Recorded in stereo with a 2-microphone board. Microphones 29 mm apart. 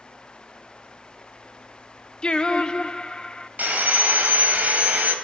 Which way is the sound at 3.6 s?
80° right.